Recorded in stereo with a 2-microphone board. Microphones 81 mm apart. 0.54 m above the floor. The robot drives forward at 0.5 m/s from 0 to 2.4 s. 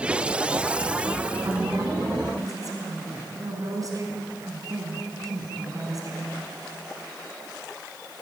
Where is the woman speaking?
50° right (ahead or behind), 4 m; by 6.3 s 45° right (ahead or behind), 4 m.